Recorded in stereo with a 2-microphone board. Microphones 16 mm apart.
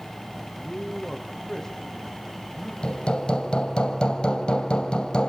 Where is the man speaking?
Centre (ahead or behind), 4.5 m; by 2.7 s 15° left (ahead or behind), 5.5 m.